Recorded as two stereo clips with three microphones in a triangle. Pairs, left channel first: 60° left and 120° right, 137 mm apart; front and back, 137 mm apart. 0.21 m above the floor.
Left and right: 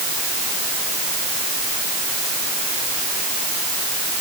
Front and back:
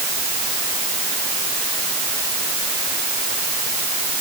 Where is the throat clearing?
I don't hear throat clearing.